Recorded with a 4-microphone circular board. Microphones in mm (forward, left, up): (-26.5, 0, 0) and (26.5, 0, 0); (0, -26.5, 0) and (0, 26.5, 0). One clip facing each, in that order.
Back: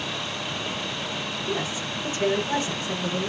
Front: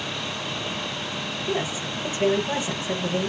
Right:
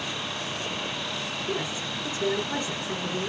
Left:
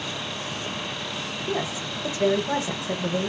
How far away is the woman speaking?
About 1.1 m.